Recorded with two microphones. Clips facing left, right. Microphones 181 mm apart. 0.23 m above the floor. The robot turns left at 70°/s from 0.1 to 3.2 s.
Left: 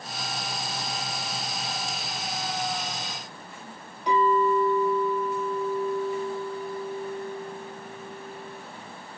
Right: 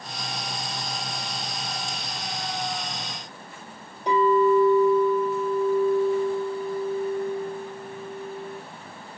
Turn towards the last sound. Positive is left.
turn(degrees=-35)  # may be behind; listen again after turning